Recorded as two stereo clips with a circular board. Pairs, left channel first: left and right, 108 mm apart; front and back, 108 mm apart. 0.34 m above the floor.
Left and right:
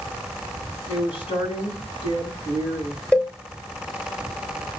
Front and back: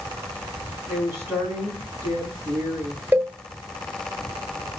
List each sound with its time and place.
0.9 s a woman speaking: 115° left, 2.5 m
3.1 s a cowbell: 145° left, 1.0 m